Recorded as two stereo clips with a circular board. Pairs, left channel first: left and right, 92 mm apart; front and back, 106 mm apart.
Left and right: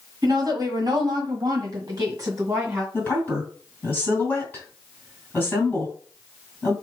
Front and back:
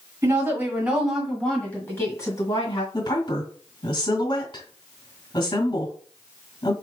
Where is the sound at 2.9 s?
30° left, 2.5 m.